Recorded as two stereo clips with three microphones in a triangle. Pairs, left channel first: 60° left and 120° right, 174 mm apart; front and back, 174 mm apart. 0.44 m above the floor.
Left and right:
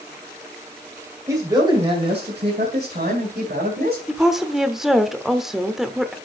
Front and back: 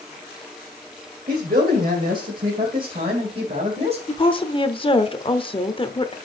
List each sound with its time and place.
1.3 s a man speaking: 170° left, 2 m; by 4.0 s 135° right, 2.5 m
4.1 s a woman speaking: 30° right, 0.9 m